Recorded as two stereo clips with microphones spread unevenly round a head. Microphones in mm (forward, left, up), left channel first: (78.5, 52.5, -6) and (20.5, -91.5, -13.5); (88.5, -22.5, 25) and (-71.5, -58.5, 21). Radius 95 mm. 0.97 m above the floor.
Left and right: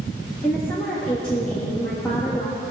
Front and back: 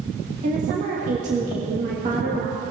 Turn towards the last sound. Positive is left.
turn(degrees=150)